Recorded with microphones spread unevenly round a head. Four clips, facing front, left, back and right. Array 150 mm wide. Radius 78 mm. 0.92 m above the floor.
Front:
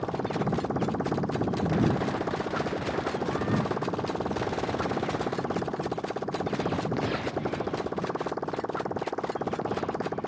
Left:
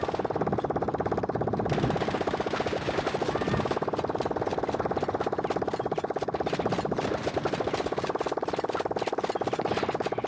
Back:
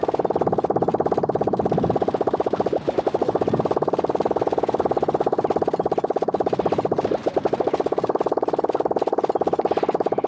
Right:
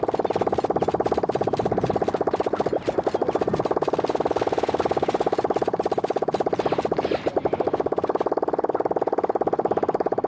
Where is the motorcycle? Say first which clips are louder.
Right 6 dB, back 9 dB; 150° right.